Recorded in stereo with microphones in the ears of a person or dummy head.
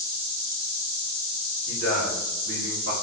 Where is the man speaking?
70° right (ahead or behind), 1.3 m; by 2.9 s 55° right (ahead or behind), 0.8 m.